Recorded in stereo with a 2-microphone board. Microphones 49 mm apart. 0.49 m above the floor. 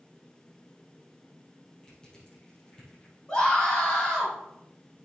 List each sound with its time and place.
1.8 s crushing: 20° left (ahead or behind), 4.5 m
3.3 s a scream: 25° left (ahead or behind), 5 m